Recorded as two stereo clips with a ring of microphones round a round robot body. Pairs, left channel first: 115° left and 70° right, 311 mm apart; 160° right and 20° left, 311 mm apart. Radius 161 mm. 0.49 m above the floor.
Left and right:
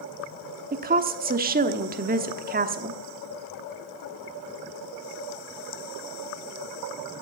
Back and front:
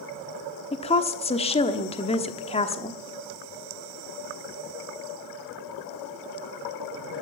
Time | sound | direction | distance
0.7 | a woman speaking | 100° right | 1.1 m